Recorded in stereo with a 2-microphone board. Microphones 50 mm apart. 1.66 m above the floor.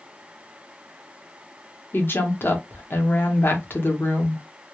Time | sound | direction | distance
1.9 | a woman speaking | 45° left (ahead or behind) | 0.8 m